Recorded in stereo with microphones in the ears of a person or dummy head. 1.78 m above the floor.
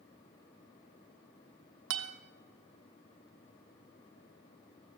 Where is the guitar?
75° right (ahead or behind), 0.9 m.